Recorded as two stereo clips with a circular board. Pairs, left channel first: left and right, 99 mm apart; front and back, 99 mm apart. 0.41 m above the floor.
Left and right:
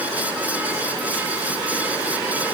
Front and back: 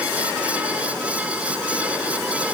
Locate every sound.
Only background noise.